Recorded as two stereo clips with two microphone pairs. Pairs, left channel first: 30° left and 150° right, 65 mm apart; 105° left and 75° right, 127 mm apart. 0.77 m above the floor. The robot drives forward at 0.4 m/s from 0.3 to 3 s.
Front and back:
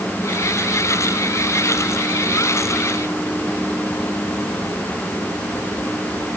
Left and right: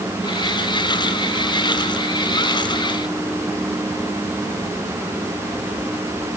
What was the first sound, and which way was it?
Only background noise.